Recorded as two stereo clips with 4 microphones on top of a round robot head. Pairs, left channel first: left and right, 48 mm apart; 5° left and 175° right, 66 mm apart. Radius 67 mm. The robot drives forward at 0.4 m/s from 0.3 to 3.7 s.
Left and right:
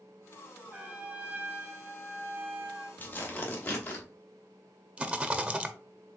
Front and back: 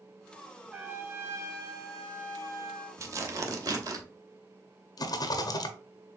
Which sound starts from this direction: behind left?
Tearing paper, at 3.0 s.